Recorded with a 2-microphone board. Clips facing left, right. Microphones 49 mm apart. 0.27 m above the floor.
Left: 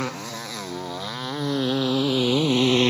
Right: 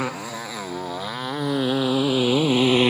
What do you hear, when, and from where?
0.0 s a motorcycle: 15° right (ahead or behind)